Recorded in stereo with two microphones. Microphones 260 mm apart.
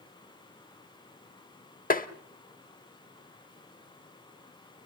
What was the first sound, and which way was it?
Tapping, 35° left (ahead or behind).